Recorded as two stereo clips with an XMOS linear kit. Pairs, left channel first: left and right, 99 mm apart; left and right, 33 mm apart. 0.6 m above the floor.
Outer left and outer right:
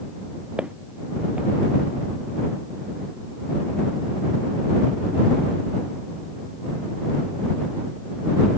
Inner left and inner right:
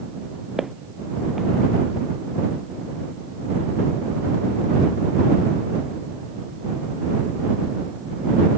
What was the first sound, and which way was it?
Footsteps, 10° right (ahead or behind).